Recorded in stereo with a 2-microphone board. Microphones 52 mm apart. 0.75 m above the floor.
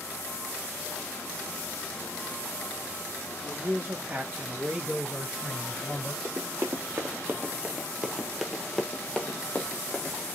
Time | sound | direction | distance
3.4 | a man speaking | 50° right (ahead or behind) | 1.3 m
6.2 | running footsteps | 50° right (ahead or behind) | 1.2 m